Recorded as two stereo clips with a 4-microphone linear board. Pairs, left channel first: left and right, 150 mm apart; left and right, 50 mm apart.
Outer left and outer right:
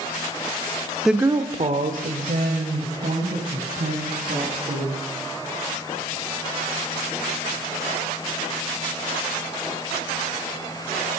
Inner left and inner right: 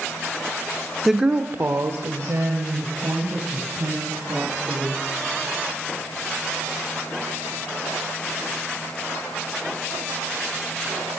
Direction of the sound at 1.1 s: Centre (ahead or behind).